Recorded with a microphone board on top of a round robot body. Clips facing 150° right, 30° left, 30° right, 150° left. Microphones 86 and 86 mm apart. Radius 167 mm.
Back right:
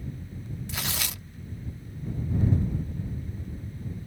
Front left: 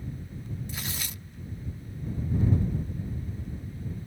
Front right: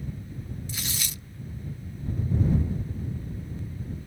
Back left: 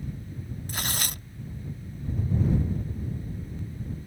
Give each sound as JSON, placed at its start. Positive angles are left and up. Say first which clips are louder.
{"t": 0.7, "sound": "tearing paper", "louder": "back right 3 dB, back left 3 dB", "azimuth_deg": -170}